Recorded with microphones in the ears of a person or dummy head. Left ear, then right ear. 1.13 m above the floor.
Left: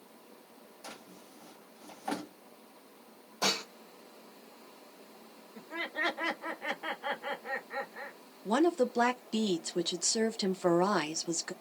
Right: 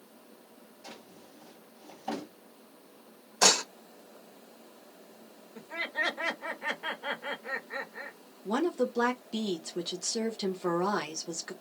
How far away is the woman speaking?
About 0.6 m.